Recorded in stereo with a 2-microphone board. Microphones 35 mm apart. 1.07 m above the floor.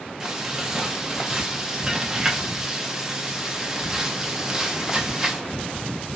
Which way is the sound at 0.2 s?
10° right (ahead or behind).